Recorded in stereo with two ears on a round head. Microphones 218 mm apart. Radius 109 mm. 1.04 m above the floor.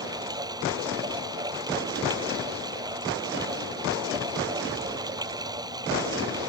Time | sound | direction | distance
0.0 | running water | 15° right (ahead or behind) | ?